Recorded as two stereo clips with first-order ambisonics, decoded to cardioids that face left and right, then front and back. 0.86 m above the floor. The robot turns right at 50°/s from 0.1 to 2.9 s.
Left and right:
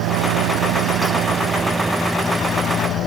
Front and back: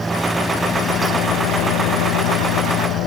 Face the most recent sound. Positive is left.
turn(degrees=40)